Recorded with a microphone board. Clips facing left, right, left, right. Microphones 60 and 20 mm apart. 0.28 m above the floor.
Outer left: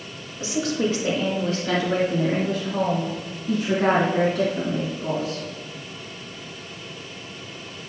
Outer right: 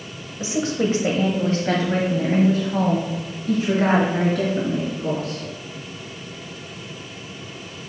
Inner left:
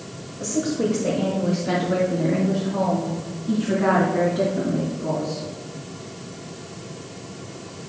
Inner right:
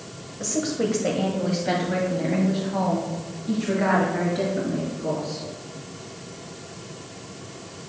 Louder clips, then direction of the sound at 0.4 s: Outer right 2 dB, inner left 2 dB; 20° right (ahead or behind).